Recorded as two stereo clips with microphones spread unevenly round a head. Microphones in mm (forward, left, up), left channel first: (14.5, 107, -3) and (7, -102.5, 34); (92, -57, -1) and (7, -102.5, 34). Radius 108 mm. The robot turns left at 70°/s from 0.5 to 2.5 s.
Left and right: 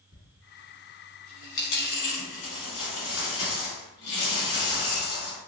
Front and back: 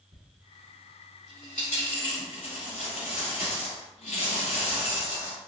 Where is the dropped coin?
155° right, 1.2 m; by 5.4 s 65° left, 1.2 m.